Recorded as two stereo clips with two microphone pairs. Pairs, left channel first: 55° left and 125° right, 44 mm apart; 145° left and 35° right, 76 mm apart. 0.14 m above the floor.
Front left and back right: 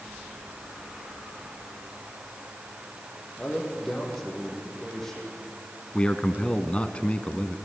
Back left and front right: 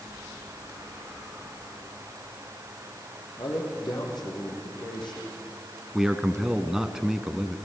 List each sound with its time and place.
3.4 s a man speaking: 135° left, 5.5 m
5.9 s a man speaking: 45° left, 1.2 m